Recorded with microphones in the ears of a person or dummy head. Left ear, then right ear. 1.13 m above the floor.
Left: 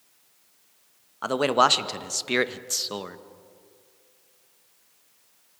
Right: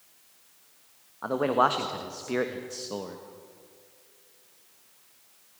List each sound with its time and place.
1.2 s a man speaking: 70° left (ahead or behind), 1.3 m; by 3.2 s 45° left (ahead or behind), 1.1 m